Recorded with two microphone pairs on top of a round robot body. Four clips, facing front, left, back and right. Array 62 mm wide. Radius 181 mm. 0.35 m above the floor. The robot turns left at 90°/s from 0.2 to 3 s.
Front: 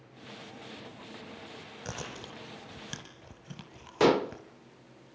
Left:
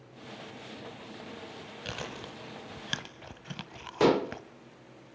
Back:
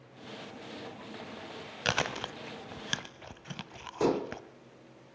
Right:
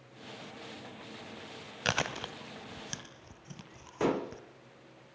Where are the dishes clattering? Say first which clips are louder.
Left 6 dB, front 5 dB; 20° left, 1.0 m.